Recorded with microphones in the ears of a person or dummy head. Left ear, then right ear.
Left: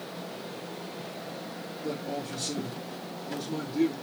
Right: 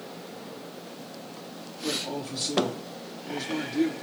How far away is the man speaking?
About 3.5 m.